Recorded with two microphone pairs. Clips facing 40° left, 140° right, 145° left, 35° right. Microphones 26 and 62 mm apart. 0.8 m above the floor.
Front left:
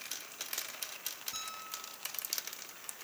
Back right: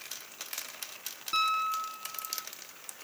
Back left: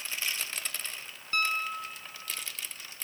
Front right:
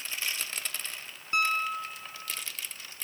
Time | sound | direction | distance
1.3 | a piano | 110° right | 1.0 m